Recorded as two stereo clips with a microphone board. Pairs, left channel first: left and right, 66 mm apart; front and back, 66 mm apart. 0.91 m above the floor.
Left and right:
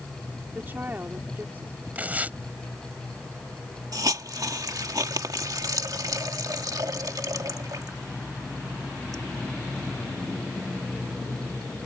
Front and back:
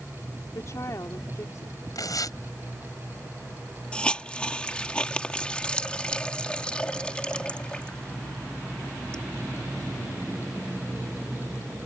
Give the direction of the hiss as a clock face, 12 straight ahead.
2 o'clock.